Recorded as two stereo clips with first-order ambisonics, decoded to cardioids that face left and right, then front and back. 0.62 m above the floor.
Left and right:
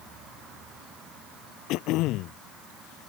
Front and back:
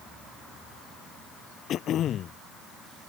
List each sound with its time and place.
1.7 s throat clearing: 55° left